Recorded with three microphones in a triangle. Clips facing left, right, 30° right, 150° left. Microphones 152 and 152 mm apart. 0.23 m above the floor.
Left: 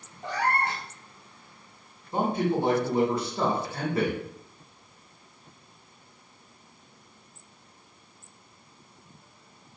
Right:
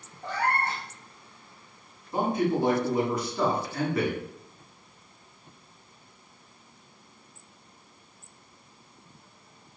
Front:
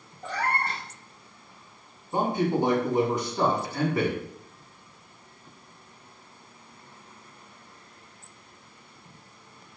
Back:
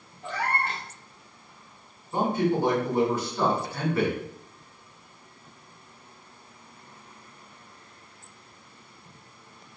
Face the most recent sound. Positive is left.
turn(degrees=35)